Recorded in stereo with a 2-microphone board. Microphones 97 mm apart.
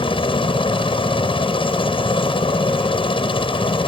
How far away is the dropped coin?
I don't hear a dropped coin.